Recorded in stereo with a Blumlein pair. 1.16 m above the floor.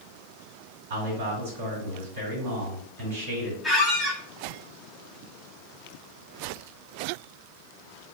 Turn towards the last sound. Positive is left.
turn(degrees=-5)